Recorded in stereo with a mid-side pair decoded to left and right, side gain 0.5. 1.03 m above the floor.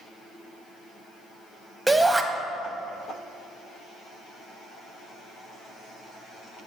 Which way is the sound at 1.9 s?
10° right.